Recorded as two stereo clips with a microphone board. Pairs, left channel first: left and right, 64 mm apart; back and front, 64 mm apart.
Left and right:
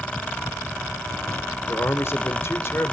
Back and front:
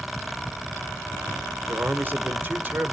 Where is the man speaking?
55° left, 1.5 m.